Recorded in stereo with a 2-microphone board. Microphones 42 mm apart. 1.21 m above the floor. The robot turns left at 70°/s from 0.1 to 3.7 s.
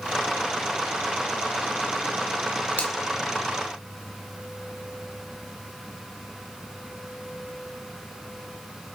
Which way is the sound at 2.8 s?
45° left (ahead or behind).